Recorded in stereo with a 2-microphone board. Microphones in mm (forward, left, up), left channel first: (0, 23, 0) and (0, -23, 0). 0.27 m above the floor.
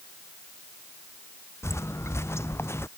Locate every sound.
1.6 s footsteps: 75° left (ahead or behind); by 2.9 s 65° left (ahead or behind)